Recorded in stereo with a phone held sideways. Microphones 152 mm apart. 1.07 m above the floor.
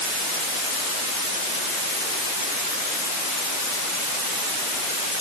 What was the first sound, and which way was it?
Only background noise.